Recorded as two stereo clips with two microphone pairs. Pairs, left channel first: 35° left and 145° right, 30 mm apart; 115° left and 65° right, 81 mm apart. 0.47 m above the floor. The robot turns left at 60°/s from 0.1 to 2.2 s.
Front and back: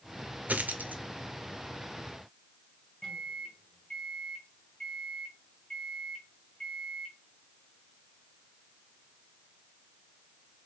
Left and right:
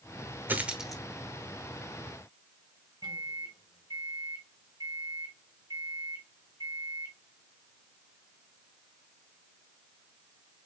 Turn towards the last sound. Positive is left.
turn(degrees=-40)